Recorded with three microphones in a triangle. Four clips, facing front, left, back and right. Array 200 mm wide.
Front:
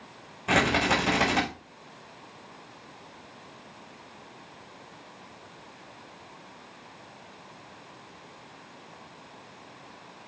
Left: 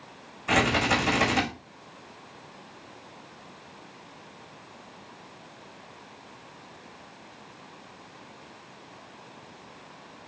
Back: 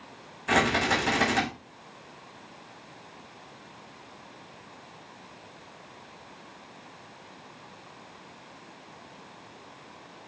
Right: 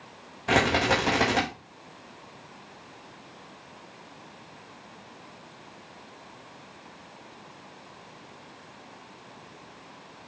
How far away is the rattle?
About 8.5 m.